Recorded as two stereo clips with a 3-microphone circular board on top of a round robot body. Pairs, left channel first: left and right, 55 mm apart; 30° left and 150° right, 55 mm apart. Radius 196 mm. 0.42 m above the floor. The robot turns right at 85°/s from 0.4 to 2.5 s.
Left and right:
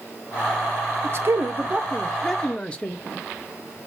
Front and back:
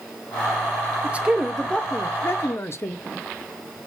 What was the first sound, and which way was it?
A man speaking, 100° right.